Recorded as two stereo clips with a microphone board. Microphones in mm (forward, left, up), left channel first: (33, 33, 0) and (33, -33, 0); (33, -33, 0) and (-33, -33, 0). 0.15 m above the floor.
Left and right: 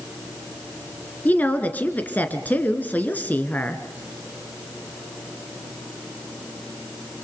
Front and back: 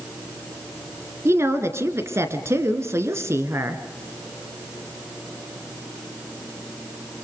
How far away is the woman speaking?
About 2 m.